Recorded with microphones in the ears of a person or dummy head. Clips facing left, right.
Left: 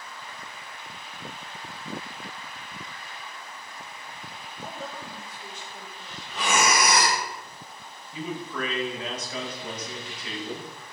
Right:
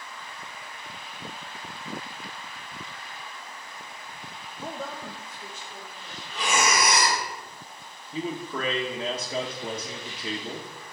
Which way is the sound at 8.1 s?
25° right (ahead or behind).